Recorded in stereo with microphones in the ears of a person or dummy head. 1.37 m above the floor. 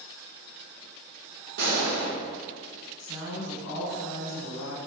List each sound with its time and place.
1.6 s a gunshot: 60° right (ahead or behind), 1.0 m
3.0 s a woman speaking: 70° left (ahead or behind), 0.9 m